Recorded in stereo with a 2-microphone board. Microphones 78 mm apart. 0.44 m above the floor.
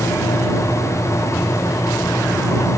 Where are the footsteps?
I don't hear footsteps.